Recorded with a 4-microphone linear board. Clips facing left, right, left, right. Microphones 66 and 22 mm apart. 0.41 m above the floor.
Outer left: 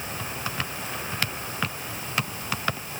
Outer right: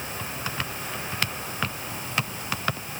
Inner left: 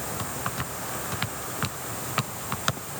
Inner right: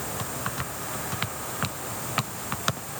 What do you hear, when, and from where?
Only background noise.